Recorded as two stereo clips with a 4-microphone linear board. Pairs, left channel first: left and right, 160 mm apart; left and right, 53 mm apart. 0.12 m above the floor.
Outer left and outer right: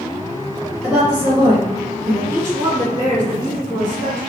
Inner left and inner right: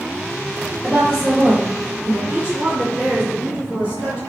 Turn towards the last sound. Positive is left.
turn(degrees=-20)  # may be behind; listen again after turning